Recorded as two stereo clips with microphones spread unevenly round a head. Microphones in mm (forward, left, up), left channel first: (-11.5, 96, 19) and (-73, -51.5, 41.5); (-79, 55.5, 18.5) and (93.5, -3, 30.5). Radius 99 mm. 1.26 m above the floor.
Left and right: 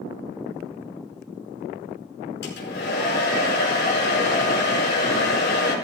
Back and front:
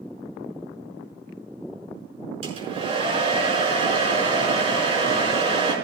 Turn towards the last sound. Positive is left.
turn(degrees=40)